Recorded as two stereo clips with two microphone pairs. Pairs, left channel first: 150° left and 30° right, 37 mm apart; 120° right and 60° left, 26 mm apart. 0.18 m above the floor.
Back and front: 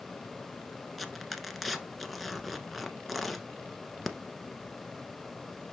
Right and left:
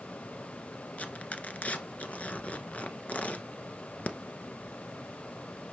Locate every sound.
1.0 s tearing paper: 125° right, 1.2 m